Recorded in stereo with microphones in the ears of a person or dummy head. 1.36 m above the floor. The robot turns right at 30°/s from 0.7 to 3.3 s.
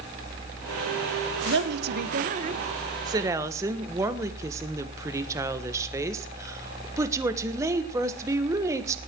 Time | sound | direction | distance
1.4 | a woman speaking | 70° right | 1.3 m